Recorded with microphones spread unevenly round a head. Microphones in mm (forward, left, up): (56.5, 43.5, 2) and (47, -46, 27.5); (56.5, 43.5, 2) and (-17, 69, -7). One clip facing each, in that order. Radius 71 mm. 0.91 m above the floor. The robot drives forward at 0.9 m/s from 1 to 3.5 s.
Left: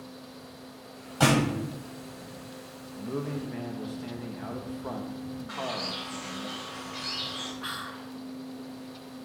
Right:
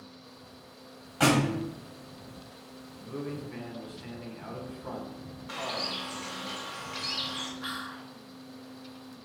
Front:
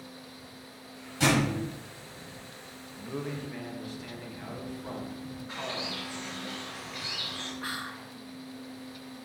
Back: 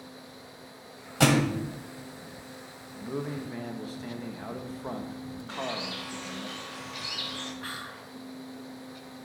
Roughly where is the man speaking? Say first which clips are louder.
Left 4 dB, back 2 dB; left.